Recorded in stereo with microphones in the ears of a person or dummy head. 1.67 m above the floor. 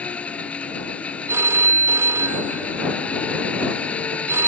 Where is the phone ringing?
15° right (ahead or behind).